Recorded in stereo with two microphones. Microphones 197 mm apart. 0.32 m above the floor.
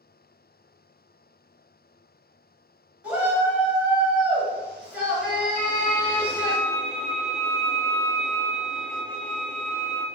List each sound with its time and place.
3.0 s a shout: 10° right (ahead or behind), 1.9 m
5.6 s a violin: 50° left (ahead or behind), 0.9 m